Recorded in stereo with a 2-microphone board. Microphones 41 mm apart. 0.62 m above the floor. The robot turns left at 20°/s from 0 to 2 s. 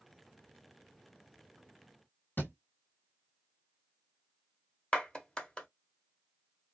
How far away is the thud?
About 1.5 m.